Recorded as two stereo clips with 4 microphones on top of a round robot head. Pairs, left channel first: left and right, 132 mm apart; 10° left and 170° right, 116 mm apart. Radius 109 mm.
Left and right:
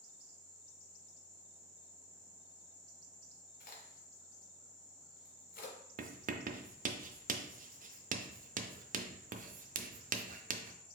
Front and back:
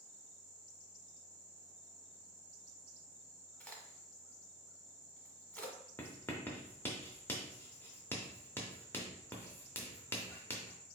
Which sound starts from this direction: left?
A crack, at 3.6 s.